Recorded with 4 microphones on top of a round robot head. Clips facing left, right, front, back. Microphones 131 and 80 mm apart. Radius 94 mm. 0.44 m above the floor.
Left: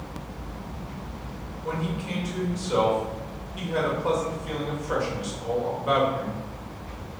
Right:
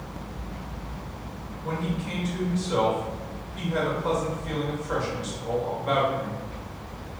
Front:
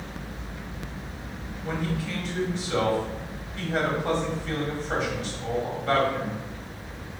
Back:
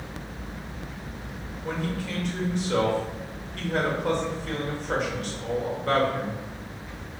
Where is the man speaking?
165° left, 2.0 m.